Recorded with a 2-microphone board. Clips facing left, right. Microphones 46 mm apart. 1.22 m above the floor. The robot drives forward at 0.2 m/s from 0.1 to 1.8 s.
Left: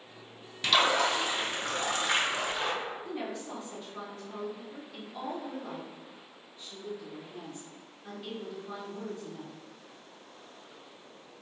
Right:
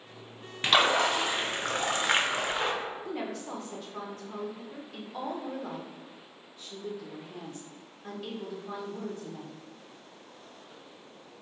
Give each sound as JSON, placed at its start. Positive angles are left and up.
{"t": 0.6, "sound": "a splash", "side_deg": -40, "distance_m": 0.5}
{"t": 3.0, "sound": "a woman speaking", "side_deg": -75, "distance_m": 0.8}